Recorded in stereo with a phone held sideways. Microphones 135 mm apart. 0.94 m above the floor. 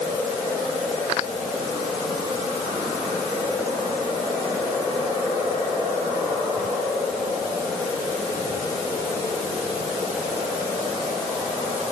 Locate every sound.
Only background noise.